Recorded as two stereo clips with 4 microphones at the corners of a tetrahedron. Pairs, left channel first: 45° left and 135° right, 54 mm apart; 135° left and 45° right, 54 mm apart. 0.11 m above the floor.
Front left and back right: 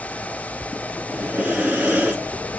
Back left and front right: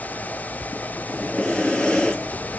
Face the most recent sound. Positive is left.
turn(degrees=-165)